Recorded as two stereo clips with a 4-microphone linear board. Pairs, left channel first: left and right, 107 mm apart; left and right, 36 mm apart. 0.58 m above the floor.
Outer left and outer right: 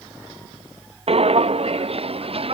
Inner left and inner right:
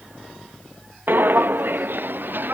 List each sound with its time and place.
1.1 s footsteps: 70° right (ahead or behind); by 2.5 s 65° right (ahead or behind)